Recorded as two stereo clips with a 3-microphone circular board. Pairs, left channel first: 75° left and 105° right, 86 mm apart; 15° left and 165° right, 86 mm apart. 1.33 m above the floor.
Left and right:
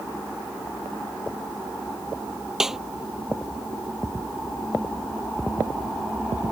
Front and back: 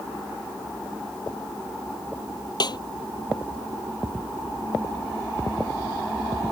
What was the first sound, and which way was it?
A snare drum, 20° right.